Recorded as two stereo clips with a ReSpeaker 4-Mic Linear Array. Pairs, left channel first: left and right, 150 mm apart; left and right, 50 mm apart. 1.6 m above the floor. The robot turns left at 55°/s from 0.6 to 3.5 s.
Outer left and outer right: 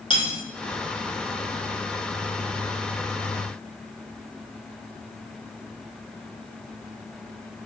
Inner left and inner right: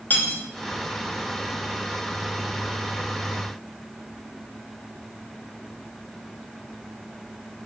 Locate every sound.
0.1 s cutlery clinking: 35° left (ahead or behind), 0.8 m